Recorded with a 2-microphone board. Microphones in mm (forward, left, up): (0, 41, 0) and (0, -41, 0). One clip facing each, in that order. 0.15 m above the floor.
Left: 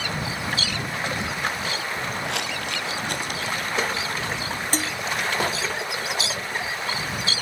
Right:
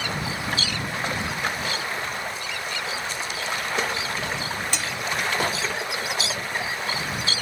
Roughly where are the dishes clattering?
Left.